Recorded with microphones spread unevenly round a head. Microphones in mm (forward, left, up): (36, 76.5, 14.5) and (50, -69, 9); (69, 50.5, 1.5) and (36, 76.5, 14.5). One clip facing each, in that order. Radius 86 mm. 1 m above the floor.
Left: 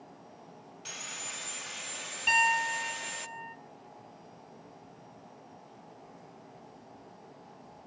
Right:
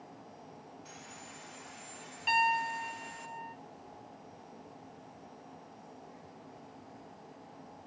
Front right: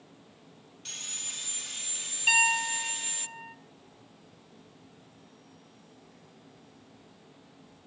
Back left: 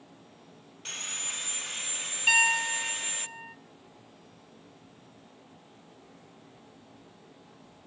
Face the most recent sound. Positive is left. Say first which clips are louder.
# even, back left 1 dB
turn(degrees=60)